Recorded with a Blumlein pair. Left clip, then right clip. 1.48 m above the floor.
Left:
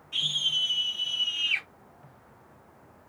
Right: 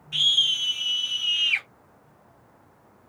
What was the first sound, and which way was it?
A scream, 20° right.